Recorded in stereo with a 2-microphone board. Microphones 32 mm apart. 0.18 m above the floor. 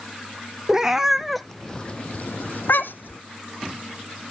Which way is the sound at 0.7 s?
15° right (ahead or behind).